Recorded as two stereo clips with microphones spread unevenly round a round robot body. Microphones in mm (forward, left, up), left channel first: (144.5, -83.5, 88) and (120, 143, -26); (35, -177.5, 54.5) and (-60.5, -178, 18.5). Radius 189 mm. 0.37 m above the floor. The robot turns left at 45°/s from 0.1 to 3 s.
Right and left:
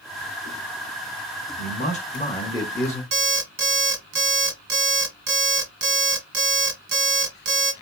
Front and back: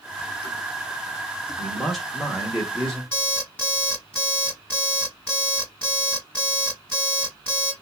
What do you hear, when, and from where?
1.6 s a man speaking: 155° right, 0.8 m; by 3.0 s 140° left, 0.8 m
3.1 s an alarm clock: 90° left, 1.3 m